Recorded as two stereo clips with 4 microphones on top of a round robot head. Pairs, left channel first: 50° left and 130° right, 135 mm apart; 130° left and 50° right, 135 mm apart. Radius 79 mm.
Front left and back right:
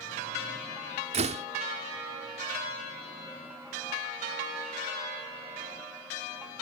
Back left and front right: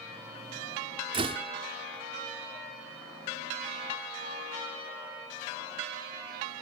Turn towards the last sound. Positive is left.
turn(degrees=-95)